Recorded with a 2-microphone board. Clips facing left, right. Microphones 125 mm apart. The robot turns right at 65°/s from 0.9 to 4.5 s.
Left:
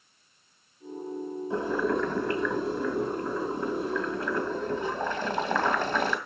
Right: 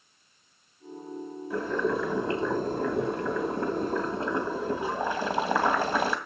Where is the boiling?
155° left, 2.5 m; by 6.2 s 10° right, 2.5 m.